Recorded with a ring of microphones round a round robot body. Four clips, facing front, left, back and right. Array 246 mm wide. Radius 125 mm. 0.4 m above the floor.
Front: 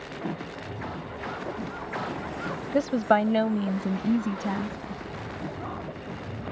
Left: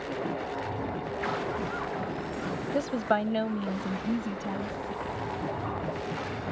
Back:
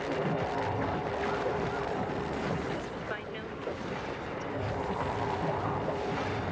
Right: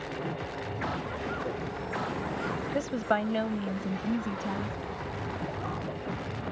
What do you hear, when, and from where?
2.7 s a woman speaking: 10° left; by 4.8 s straight ahead